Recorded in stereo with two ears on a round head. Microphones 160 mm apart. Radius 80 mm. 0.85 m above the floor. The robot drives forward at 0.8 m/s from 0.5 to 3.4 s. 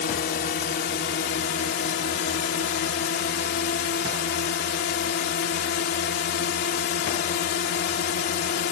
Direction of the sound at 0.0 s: 55° left (ahead or behind).